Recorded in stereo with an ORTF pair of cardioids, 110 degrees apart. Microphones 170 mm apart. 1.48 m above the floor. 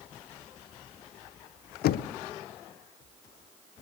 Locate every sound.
1.8 s knocking: 65° left, 0.6 m